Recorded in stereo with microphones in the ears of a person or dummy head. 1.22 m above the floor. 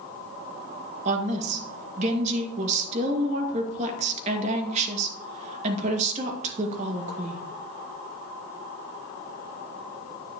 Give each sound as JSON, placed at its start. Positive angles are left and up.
{"t": 1.1, "sound": "a woman speaking", "side_deg": -35, "distance_m": 2.0}